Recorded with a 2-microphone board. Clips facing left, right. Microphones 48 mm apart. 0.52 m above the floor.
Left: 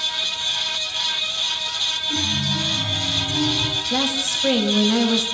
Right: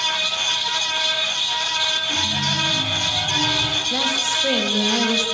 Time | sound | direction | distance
2.1 | a chime | 25° right (ahead or behind) | 3 m
3.9 | a woman speaking | 5° left (ahead or behind) | 3.5 m